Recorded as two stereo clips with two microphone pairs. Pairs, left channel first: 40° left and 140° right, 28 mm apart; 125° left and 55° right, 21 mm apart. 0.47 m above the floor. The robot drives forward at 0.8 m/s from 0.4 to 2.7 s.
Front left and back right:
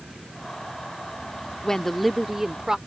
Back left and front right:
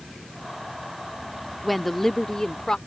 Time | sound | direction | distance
1.6 | a woman speaking | 30° left | ?